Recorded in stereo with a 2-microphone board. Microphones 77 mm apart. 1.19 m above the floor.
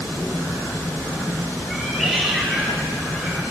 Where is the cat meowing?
Centre (ahead or behind), 2.0 m.